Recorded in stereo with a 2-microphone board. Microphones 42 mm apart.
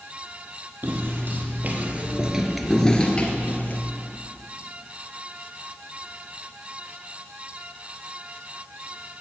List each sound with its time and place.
0.8 s footsteps: 50° right (ahead or behind), 2.5 m; by 3.8 s 45° left (ahead or behind), 2 m